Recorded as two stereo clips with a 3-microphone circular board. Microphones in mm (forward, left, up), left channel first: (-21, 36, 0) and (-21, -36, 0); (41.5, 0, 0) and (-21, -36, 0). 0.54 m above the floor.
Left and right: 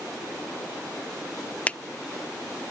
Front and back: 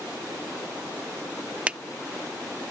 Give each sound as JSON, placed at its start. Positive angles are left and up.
{"t": 1.7, "sound": "a finger snap", "azimuth_deg": 145}